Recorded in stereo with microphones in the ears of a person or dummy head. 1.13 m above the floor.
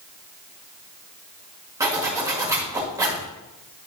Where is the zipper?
15° right (ahead or behind), 1.9 m.